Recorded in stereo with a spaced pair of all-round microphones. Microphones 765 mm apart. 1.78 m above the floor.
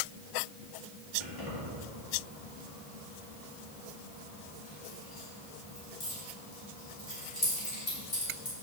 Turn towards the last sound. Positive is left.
turn(degrees=40)  # may be behind; listen again after turning